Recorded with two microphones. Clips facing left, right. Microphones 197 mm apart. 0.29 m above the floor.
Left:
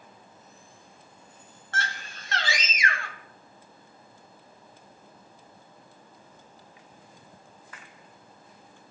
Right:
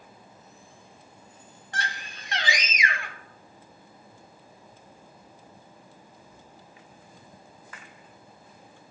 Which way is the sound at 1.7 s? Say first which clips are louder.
Left 1 dB; 15° right (ahead or behind).